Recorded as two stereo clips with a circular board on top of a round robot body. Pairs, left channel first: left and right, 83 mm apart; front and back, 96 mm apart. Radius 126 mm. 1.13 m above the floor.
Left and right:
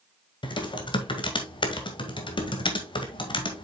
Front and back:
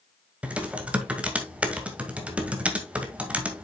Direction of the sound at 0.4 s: 105° left.